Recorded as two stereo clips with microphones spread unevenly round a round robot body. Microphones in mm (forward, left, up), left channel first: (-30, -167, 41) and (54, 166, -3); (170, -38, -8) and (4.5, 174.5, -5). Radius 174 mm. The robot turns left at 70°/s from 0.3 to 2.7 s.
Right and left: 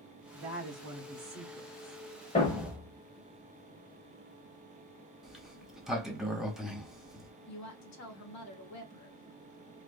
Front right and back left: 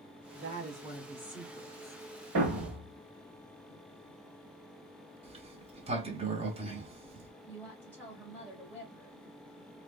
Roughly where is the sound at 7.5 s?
Behind right.